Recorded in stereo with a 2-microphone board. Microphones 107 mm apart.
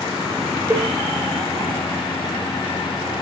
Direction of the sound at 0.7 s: 25° right (ahead or behind).